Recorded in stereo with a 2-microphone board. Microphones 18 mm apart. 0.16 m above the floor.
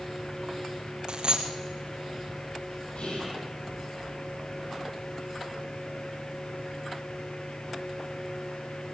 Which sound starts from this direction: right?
A dropped coin, at 1.1 s.